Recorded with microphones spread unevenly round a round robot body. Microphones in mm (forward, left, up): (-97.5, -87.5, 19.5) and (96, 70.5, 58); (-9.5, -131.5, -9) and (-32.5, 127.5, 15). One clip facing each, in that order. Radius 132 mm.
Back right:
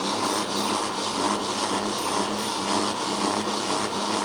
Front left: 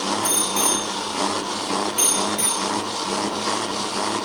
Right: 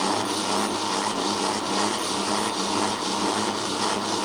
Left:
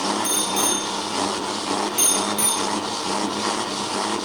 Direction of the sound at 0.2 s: 85° left.